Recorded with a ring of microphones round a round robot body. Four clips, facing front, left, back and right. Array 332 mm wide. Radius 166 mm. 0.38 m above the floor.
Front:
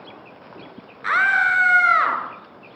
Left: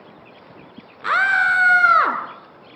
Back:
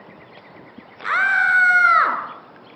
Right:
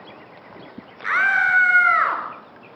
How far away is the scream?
About 5.5 m.